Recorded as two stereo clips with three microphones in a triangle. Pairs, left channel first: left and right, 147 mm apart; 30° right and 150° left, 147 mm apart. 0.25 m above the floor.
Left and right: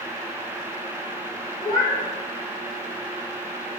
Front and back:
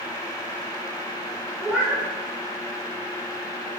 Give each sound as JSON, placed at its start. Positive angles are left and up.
{"t": 1.6, "sound": "a cat meowing", "azimuth_deg": 60, "distance_m": 1.9}